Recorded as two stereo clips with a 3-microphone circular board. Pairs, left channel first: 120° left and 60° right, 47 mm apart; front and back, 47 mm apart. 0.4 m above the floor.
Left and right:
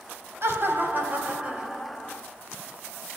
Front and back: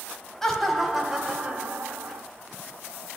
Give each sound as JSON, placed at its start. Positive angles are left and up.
{"t": 0.4, "sound": "laughter", "azimuth_deg": -85, "distance_m": 2.0}